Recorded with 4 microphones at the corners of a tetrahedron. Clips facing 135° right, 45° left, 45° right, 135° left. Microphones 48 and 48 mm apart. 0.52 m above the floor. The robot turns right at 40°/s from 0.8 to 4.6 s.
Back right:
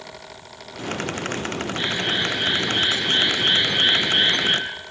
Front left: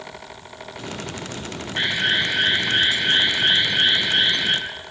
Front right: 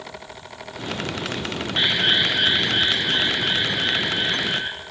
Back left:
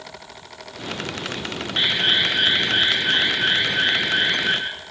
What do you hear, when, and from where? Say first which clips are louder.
1.8 s an alarm: front left 4 dB, even; 55° left, 7 m; by 4.6 s 170° left, 7 m